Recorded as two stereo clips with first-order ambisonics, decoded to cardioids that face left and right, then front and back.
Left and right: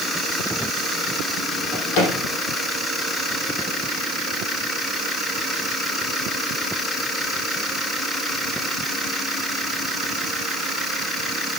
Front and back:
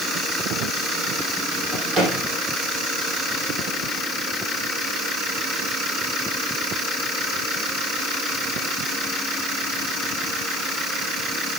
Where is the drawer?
105° left, 6 m.